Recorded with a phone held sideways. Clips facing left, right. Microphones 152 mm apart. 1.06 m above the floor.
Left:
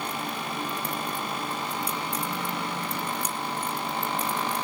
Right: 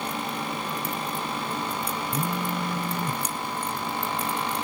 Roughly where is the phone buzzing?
Right.